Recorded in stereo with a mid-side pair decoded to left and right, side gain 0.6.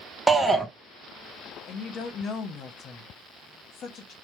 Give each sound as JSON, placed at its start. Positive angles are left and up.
{"t": 0.3, "sound": "a shout", "azimuth_deg": -10, "distance_m": 0.6}
{"t": 1.7, "sound": "a woman speaking", "azimuth_deg": 50, "distance_m": 0.9}